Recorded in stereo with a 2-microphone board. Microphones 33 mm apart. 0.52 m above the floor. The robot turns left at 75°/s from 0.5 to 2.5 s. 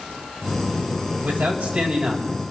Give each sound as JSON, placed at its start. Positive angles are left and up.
{"t": 1.2, "sound": "a man speaking", "azimuth_deg": -85, "distance_m": 3.0}